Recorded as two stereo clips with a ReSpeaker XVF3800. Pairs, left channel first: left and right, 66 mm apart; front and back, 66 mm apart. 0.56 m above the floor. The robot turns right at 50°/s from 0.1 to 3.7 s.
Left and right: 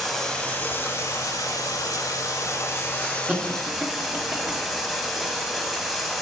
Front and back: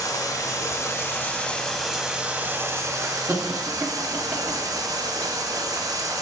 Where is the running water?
Straight ahead, 1.0 m; by 6.2 s straight behind, 1.0 m.